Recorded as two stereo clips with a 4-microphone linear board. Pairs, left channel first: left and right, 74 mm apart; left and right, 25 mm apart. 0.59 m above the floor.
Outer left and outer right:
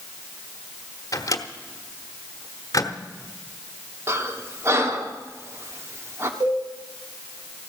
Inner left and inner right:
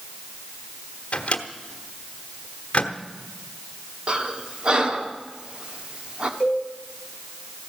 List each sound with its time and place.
1.1 s a microwave: 45° left (ahead or behind), 1.2 m
4.1 s breathing: 40° right (ahead or behind), 1.3 m
6.4 s a cowbell: 70° right (ahead or behind), 7 m